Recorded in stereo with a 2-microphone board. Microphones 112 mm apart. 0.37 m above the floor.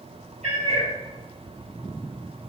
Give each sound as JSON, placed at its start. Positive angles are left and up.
{"t": 0.4, "sound": "a cat meowing", "side_deg": -75, "distance_m": 4.5}